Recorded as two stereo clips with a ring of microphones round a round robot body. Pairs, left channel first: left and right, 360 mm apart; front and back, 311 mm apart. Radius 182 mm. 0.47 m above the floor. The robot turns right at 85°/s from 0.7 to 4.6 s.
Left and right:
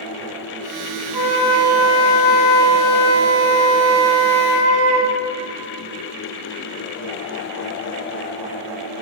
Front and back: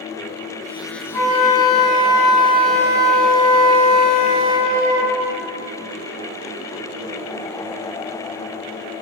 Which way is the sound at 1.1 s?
5° right.